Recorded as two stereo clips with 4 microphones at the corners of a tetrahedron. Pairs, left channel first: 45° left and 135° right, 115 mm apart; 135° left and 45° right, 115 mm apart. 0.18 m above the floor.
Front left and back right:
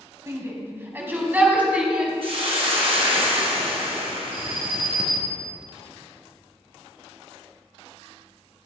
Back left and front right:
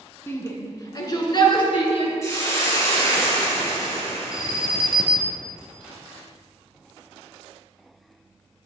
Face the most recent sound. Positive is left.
turn(degrees=-125)